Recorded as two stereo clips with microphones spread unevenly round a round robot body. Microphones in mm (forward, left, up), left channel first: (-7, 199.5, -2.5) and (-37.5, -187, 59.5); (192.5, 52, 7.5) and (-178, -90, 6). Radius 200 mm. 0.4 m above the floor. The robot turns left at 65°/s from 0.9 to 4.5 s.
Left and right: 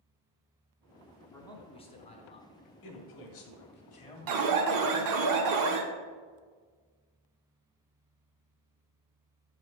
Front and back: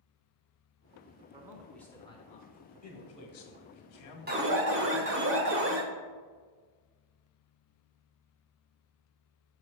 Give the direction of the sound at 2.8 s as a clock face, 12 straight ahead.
8 o'clock.